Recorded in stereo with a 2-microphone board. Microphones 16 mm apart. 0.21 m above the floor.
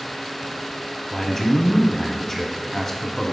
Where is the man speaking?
20° left (ahead or behind), 1.0 m.